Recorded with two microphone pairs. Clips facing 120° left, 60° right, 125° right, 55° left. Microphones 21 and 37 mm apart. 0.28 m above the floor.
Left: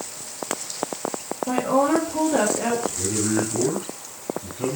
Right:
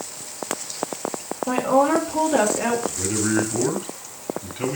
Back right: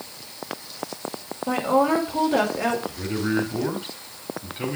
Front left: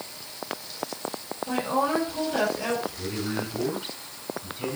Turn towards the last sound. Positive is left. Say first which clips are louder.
# right 1 dB, back right 6 dB
turn(degrees=-95)